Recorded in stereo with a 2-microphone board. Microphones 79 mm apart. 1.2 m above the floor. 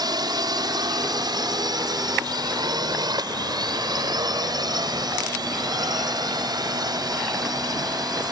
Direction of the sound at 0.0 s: 70° right (ahead or behind).